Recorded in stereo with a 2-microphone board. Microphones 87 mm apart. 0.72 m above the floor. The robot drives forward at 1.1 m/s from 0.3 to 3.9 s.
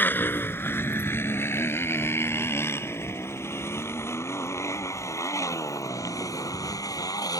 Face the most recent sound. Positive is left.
turn(degrees=45)  # may be behind; listen again after turning